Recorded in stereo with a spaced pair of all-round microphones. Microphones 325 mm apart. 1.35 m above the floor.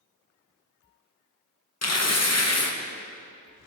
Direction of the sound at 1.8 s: 50° left (ahead or behind).